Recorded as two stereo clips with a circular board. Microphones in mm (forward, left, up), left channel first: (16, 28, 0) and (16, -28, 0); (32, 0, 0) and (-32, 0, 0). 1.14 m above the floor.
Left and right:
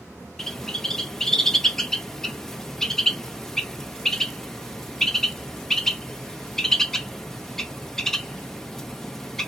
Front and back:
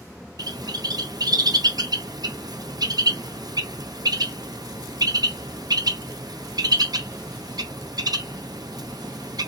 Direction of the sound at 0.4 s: 175° left.